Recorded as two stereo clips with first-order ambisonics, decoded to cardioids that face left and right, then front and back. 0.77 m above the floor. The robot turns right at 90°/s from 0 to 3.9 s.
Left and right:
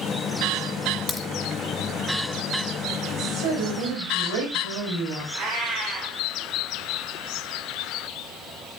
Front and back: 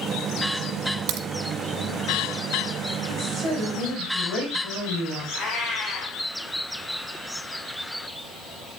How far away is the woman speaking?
About 4 m.